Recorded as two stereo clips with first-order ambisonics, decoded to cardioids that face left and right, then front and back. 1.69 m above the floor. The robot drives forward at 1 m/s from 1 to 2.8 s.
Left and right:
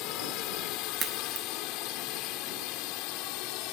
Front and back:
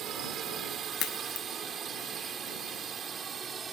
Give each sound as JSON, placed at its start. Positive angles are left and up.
{"t": 0.0, "sound": "a drone", "azimuth_deg": 125}
{"t": 1.0, "sound": "a crack", "azimuth_deg": -30}